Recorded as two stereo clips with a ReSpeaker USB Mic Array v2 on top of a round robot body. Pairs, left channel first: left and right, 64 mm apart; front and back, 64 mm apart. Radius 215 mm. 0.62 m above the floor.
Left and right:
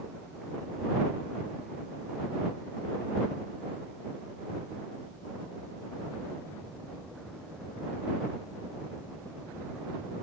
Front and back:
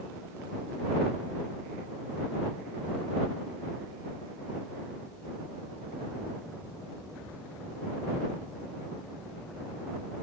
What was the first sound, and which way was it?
Only background noise.